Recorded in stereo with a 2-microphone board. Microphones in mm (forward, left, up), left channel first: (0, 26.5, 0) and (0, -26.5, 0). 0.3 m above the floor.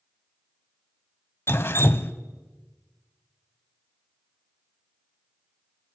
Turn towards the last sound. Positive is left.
turn(degrees=50)  # may be behind; listen again after turning